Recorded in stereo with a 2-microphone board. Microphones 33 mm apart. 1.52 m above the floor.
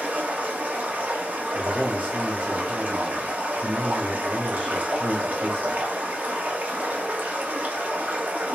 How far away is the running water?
About 1.0 m.